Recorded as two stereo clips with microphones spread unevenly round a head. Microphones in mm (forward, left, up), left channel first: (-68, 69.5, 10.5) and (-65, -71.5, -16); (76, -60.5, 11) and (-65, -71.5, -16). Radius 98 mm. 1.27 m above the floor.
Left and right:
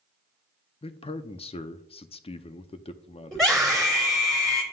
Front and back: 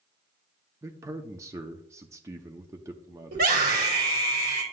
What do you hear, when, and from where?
0.8 s a man speaking: 135° left, 0.6 m
3.3 s a scream: straight behind, 4 m